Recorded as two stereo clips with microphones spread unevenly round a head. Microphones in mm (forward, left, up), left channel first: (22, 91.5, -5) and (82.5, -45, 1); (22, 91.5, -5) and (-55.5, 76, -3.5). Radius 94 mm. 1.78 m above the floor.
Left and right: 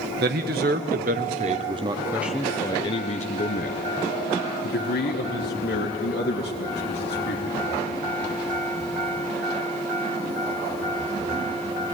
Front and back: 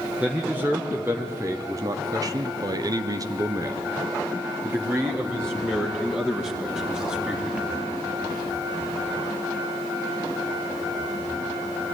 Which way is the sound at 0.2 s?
90° right.